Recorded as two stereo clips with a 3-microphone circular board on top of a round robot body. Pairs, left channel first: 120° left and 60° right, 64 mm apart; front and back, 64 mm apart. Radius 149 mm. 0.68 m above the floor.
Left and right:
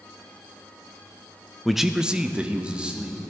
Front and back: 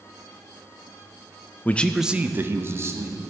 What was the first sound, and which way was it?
A man speaking, 30° left.